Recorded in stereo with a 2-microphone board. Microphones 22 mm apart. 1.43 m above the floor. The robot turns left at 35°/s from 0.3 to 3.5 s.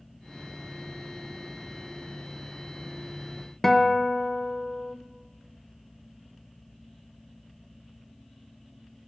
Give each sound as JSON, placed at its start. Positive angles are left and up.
{"t": 3.6, "sound": "a guitar", "side_deg": 20, "distance_m": 0.5}